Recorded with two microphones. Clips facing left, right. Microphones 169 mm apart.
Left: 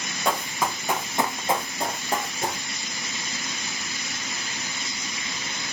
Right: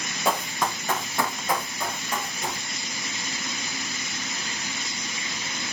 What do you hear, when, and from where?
0.2 s running footsteps: 5° right (ahead or behind), 1.7 m; by 2.6 s 45° left (ahead or behind), 2.5 m